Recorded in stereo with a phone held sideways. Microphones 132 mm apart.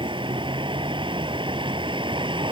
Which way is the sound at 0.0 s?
40° right (ahead or behind).